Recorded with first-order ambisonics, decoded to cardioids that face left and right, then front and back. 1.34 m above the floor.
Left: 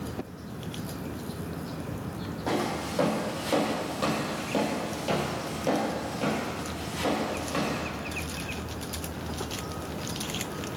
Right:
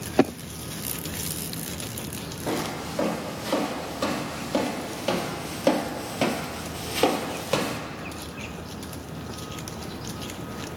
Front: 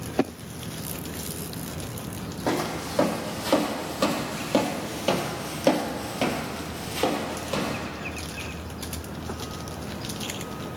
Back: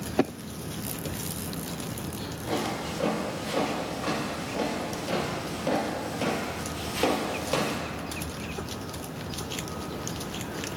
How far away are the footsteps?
About 4 m.